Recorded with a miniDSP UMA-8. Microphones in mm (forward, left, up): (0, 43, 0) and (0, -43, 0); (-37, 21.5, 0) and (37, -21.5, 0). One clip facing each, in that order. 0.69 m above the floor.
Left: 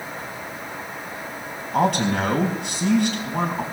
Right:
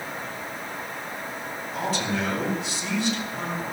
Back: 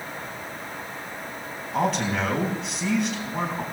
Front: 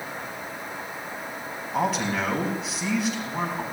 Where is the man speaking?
60° left, 4.5 m.